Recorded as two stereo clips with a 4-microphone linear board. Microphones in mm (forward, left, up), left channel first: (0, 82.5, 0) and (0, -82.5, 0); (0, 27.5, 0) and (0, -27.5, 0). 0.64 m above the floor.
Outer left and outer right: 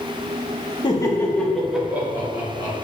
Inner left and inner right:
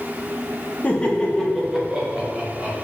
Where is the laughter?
25° left (ahead or behind), 0.8 m; by 2.8 s 25° right (ahead or behind), 1.3 m.